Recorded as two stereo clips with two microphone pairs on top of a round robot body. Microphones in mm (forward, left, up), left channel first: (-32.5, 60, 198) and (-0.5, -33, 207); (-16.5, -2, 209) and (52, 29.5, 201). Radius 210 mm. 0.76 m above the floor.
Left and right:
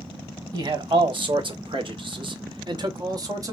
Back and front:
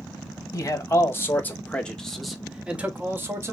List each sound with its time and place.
0.5 s a man speaking: 110° right, 1.4 m; by 3.5 s 20° right, 1.3 m